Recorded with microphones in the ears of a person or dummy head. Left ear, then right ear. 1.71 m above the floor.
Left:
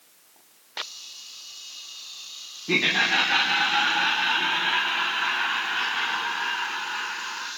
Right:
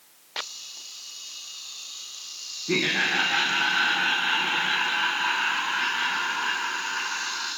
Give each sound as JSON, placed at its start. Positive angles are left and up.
{"t": 2.7, "sound": "laughter", "side_deg": 20, "distance_m": 0.6}